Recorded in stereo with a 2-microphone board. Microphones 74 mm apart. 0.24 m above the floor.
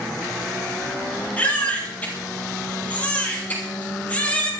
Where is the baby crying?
20° left (ahead or behind), 5.5 m.